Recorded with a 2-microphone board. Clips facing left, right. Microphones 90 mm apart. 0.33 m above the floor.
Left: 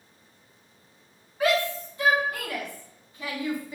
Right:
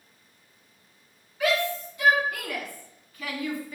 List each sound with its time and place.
1.4 s a shout: 35° left (ahead or behind), 4.5 m; by 3.8 s 20° left (ahead or behind), 3 m